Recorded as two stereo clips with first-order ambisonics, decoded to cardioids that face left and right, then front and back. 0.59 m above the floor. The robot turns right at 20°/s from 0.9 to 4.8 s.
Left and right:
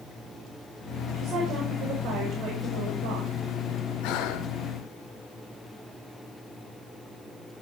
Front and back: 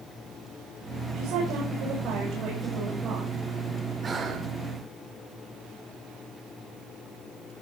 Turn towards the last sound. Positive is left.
turn(degrees=120)